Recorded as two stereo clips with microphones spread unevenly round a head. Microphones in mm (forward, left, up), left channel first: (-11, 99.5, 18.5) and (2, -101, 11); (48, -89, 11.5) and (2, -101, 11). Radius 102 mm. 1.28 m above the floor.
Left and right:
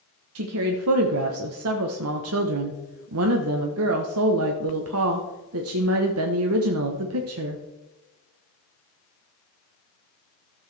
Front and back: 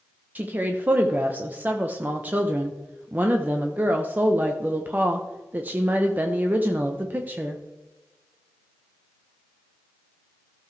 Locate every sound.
0.3 s a woman speaking: 110° right, 0.9 m